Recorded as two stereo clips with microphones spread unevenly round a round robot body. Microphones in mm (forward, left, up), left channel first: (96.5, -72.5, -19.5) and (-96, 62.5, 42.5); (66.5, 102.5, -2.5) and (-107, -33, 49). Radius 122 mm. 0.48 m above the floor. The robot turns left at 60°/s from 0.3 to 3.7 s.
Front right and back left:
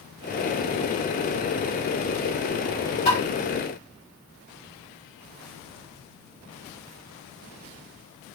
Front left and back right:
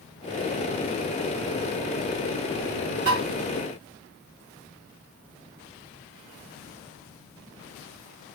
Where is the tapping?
90° right, 3 m; by 3.2 s 100° right, 3 m.